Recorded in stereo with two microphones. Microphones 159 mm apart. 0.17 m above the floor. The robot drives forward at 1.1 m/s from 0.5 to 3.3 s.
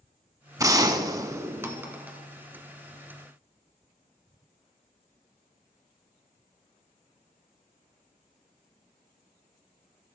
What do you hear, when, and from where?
0.6 s a gunshot: 20° right (ahead or behind), 0.7 m; by 2.2 s 10° right (ahead or behind), 1.5 m